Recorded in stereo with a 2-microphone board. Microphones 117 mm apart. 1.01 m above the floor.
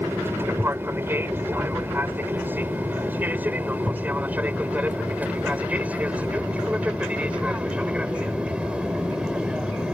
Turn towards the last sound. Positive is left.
turn(degrees=-10)  # may be behind; listen again after turning